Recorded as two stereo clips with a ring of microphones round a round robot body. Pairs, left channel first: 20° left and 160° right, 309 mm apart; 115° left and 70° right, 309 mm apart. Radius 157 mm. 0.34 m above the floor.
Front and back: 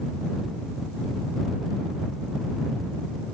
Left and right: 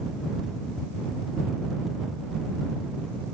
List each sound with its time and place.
Only background noise.